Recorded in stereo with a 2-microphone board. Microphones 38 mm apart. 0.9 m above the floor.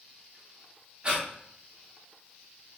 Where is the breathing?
25° right (ahead or behind), 0.6 m.